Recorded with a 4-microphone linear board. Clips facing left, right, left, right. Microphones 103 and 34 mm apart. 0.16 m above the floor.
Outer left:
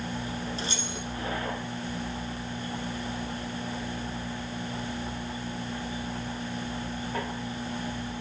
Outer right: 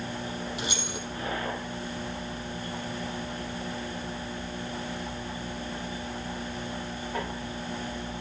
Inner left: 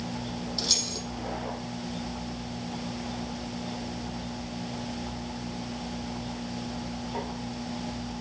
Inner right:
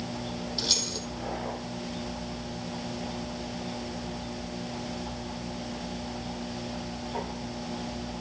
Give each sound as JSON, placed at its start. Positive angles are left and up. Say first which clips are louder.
{"t": 0.6, "sound": "keys jangling", "louder": "even, inner right 1 dB", "side_deg": -15, "distance_m": 4.0}